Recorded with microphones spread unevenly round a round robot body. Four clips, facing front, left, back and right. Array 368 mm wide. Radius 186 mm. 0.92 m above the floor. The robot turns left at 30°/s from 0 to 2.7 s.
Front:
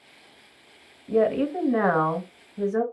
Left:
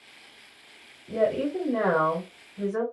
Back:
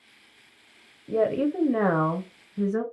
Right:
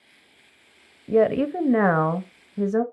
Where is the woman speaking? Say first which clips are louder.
Right 5 dB, front 2 dB; 80° right, 0.5 m; by 2.8 s 125° right, 0.5 m.